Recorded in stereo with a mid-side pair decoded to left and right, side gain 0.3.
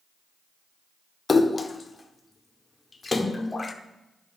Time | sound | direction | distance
1.3 | a splash | 35° left | 0.9 m